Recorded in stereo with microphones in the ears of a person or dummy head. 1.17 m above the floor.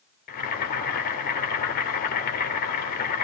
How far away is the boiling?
About 3.5 m.